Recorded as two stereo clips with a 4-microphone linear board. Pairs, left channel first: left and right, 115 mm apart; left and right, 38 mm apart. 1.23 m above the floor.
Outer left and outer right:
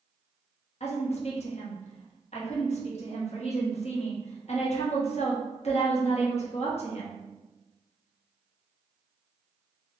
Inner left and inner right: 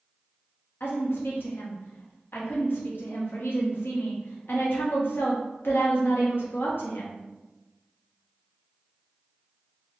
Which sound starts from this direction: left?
A woman speaking, at 0.8 s.